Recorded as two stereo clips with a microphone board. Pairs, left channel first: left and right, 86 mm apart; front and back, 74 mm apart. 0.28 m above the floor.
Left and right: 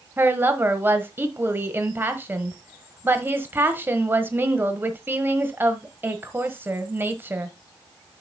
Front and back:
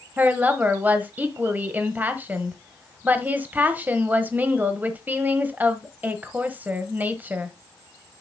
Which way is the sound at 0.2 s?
135° right.